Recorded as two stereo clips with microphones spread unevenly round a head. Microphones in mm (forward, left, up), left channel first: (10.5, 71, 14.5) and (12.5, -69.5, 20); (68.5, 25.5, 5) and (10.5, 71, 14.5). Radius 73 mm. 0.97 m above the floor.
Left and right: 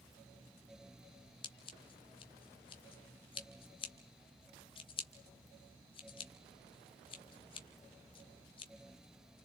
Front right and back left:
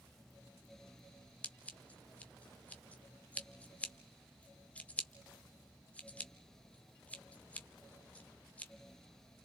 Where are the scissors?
35° left, 1.5 m.